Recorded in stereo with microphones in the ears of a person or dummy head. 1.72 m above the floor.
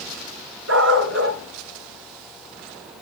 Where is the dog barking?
70° right (ahead or behind), 5 m.